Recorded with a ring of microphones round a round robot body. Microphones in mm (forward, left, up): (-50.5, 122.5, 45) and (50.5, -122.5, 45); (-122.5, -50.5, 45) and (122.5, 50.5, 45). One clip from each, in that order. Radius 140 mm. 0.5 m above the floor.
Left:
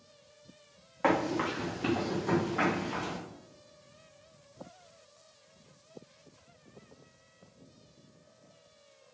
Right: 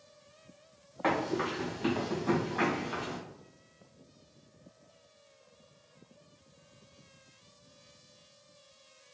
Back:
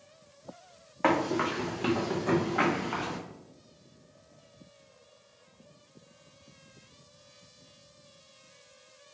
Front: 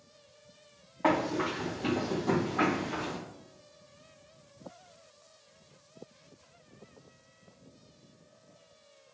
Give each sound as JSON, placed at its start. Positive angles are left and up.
{"t": 1.0, "sound": "running footsteps", "azimuth_deg": 180, "distance_m": 1.5}